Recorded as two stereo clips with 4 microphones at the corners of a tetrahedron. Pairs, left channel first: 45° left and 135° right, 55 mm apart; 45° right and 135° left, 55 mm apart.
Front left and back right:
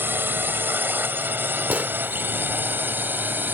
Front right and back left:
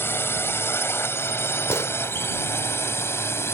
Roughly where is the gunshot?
Right.